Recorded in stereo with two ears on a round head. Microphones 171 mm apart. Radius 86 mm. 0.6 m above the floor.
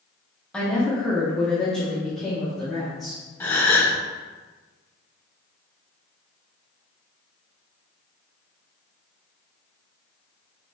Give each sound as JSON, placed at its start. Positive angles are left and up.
{"t": 0.5, "sound": "a woman speaking", "side_deg": 5, "distance_m": 0.7}
{"t": 3.4, "sound": "a gasp", "side_deg": 10, "distance_m": 0.6}